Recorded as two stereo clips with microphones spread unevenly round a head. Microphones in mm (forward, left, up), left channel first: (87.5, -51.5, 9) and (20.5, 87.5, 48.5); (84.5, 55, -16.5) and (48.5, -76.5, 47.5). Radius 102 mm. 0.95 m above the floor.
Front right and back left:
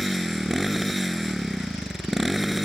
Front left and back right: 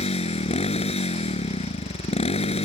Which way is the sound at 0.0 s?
30° left.